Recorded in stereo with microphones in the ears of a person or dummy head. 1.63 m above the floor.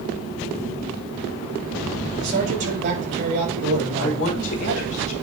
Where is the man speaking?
55° right (ahead or behind), 7 m.